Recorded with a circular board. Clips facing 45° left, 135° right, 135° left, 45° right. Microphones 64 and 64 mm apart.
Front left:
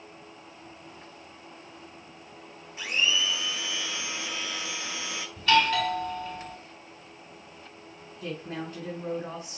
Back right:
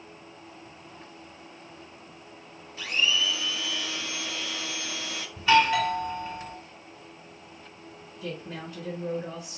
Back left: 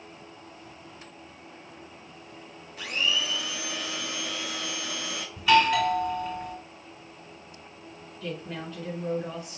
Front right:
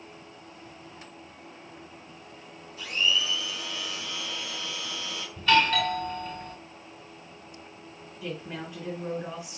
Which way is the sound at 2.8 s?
115° left.